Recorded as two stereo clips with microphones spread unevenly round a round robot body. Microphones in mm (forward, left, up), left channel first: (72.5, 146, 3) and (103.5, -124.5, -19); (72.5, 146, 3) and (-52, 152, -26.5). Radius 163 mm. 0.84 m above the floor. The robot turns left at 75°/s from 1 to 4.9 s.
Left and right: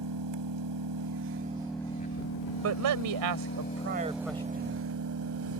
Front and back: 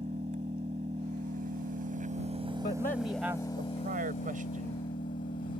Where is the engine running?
120° right; by 5.6 s 50° right.